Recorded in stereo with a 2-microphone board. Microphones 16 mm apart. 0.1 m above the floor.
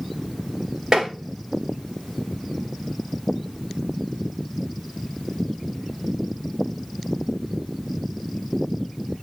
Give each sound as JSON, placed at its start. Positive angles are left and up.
{"t": 0.9, "sound": "tapping", "side_deg": -45, "distance_m": 1.8}